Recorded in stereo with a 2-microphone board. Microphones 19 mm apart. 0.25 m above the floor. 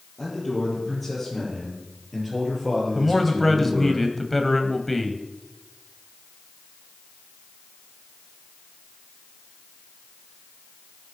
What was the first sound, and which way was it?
A man speaking, 20° left (ahead or behind).